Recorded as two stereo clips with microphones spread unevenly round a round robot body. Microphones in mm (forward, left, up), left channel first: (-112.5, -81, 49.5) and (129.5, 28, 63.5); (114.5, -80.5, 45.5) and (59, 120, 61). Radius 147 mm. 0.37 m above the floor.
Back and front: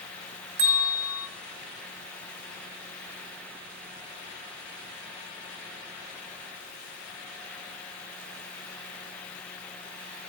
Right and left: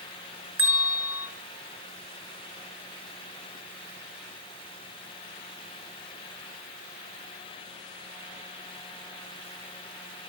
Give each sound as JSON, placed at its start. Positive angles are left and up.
{"t": 0.6, "sound": "a bell", "azimuth_deg": 20, "distance_m": 3.5}